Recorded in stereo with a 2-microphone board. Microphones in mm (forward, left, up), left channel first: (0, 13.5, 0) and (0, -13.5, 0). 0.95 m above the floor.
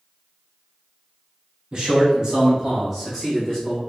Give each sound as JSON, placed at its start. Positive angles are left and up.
{"t": 1.7, "sound": "a man speaking", "side_deg": -30, "distance_m": 1.7}